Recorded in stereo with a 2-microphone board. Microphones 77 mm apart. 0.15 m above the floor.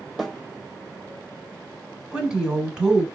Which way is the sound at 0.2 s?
5° right (ahead or behind).